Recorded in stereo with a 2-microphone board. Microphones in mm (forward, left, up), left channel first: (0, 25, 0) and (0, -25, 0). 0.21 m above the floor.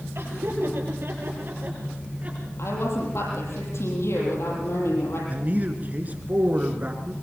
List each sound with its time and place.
0.1 s laughter: 65° right (ahead or behind), 6.5 m; by 2.5 s 30° right (ahead or behind), 5 m
2.6 s a woman speaking: 70° left (ahead or behind), 7 m
5.3 s a man speaking: 40° right (ahead or behind), 2.5 m